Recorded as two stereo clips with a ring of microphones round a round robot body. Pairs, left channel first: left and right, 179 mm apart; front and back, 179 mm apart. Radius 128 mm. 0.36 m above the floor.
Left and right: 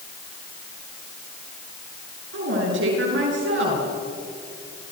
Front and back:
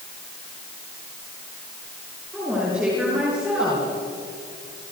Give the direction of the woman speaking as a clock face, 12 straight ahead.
3 o'clock.